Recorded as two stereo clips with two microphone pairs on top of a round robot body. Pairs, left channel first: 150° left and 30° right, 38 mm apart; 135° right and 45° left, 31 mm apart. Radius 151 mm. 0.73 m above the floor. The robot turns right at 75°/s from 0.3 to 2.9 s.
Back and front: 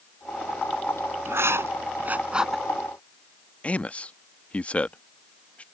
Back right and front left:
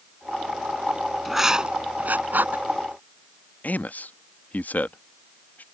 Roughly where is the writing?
Ahead right.